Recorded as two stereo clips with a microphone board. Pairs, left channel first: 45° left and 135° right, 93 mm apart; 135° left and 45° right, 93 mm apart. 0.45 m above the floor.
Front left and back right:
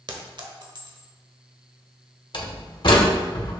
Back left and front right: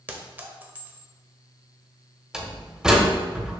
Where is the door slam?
35° left, 1.4 m.